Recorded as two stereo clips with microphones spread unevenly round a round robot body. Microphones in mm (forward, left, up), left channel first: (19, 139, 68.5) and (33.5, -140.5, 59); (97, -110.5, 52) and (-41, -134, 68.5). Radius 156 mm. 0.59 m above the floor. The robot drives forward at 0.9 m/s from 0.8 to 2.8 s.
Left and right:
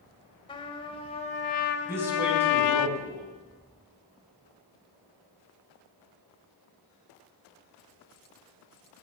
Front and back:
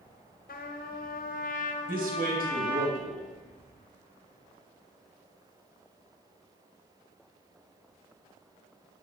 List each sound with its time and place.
0.5 s a trumpet: 20° left, 1.7 m; by 2.9 s 115° left, 0.6 m
1.9 s a man speaking: 170° right, 3 m